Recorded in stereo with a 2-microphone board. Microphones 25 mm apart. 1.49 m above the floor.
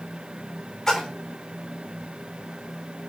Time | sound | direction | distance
0.9 | a splash | 20° left (ahead or behind) | 3.5 m